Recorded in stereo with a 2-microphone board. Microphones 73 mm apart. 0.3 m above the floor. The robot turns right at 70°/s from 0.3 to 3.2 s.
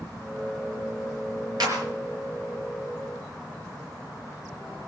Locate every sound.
1.6 s a clap: 65° right (ahead or behind), 4.5 m; by 1.8 s 75° right (ahead or behind), 4.5 m